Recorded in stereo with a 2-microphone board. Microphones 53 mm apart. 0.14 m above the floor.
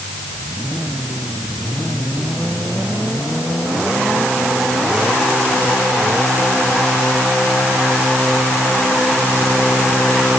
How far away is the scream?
I don't hear a scream.